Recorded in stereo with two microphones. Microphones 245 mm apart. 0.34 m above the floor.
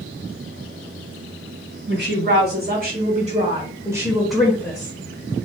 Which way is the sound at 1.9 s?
45° right (ahead or behind).